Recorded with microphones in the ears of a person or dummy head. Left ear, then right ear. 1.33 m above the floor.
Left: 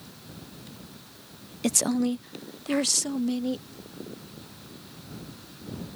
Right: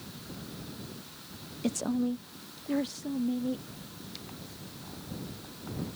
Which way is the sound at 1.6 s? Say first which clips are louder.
Left 6 dB; 40° left (ahead or behind).